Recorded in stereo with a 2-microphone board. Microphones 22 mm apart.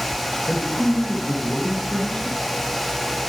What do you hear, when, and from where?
0.5 s a man speaking: 55° left (ahead or behind), 4.5 m